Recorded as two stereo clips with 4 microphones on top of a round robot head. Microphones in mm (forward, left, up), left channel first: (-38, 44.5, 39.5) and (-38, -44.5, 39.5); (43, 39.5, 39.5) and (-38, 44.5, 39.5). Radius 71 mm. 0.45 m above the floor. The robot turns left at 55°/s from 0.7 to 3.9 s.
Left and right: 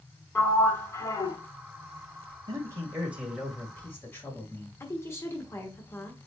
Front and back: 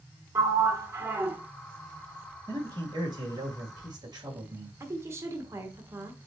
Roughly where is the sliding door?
Behind left.